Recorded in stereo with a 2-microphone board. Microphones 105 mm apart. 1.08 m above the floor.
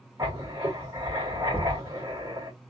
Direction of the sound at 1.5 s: 15° left (ahead or behind).